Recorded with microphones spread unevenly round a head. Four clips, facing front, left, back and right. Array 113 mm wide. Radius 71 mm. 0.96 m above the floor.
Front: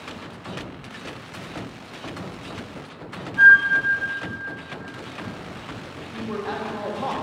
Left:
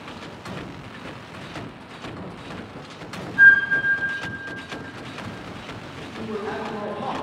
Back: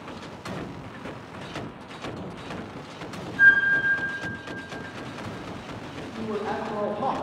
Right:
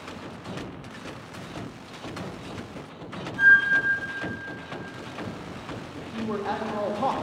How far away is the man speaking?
About 0.9 m.